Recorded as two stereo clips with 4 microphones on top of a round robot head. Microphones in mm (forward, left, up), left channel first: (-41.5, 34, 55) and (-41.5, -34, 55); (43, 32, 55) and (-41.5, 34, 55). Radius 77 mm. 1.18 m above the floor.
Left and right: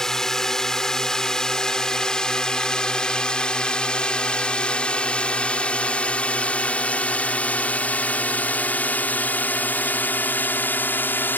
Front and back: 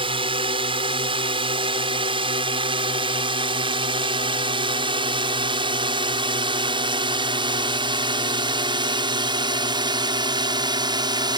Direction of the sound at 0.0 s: 175° left.